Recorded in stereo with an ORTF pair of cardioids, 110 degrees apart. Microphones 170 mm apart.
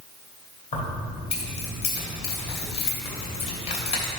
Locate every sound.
0.7 s keys jangling: 40° left, 2.5 m